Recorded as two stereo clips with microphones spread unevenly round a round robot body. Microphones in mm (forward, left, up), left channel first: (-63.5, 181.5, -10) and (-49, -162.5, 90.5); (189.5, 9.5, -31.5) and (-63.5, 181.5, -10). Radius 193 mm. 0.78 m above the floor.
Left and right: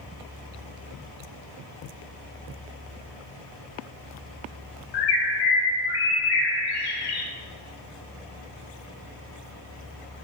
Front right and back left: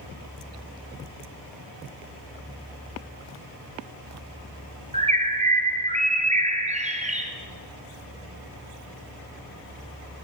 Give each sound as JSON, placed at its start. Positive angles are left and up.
{"t": 4.9, "sound": "a bird", "azimuth_deg": 75, "distance_m": 0.7}